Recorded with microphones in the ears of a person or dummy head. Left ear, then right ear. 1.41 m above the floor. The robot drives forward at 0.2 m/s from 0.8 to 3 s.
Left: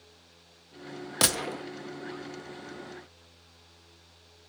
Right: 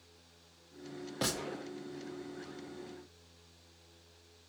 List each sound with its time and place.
1.2 s a gunshot: 40° left (ahead or behind), 0.6 m; by 1.6 s 35° left (ahead or behind), 0.7 m